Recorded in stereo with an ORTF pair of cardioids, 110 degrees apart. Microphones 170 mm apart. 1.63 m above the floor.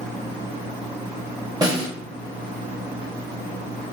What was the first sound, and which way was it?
A snare drum, 20° right.